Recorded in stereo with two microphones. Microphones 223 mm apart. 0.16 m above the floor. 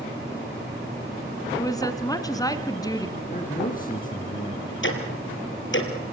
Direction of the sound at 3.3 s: 40° left (ahead or behind).